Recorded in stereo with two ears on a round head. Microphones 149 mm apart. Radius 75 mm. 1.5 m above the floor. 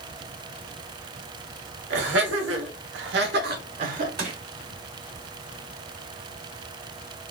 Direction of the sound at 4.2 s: 65° right (ahead or behind).